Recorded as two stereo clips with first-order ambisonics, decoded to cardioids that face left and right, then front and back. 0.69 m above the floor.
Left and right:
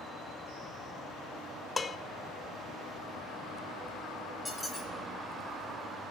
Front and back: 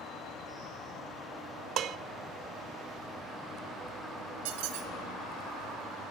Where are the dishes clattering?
160° left, 0.5 m.